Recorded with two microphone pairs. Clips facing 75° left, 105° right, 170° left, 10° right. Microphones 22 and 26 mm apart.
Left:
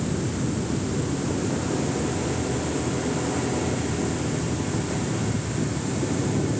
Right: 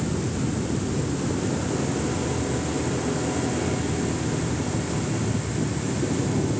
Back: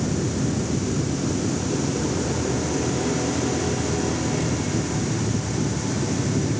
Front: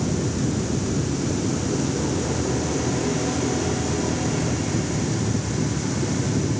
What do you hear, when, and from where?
Only background noise.